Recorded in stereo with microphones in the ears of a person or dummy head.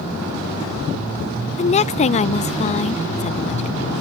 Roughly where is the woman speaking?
Left.